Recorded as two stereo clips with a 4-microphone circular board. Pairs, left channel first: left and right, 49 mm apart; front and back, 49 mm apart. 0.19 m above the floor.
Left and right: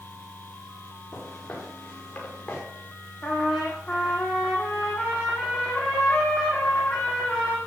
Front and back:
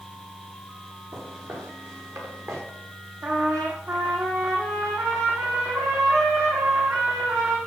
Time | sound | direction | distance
1.1 | footsteps | 165° left | 6 m
3.2 | a trumpet | 170° left | 9 m